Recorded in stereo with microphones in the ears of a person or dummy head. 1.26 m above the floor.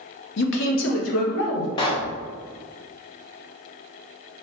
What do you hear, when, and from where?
0.4 s a man speaking: 60° left (ahead or behind), 0.6 m; by 1.7 s 80° left, 1.3 m
1.8 s a pop: 20° left (ahead or behind), 0.5 m